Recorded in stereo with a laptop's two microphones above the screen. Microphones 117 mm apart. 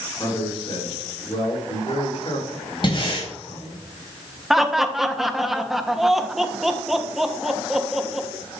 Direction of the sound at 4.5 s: 5° right (ahead or behind).